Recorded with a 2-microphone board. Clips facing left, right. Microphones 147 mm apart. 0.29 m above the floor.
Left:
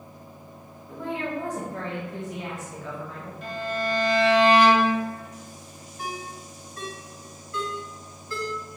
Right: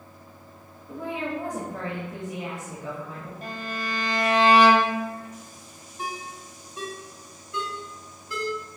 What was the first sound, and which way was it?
A woman speaking, 15° right (ahead or behind).